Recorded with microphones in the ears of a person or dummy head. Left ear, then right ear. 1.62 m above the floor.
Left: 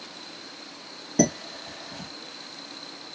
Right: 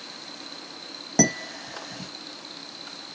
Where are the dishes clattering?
40° right (ahead or behind), 1.7 m.